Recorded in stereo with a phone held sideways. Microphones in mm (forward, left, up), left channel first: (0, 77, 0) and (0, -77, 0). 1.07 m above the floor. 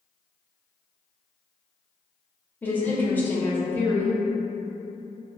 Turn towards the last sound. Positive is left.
turn(degrees=15)  # may be behind; listen again after turning